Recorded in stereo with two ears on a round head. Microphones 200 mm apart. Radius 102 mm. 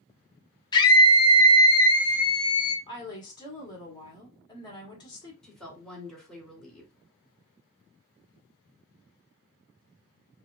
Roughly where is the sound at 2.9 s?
Left.